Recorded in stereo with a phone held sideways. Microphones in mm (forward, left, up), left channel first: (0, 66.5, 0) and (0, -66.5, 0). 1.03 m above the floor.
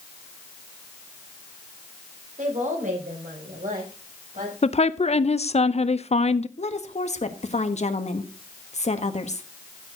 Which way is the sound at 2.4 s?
70° right (ahead or behind).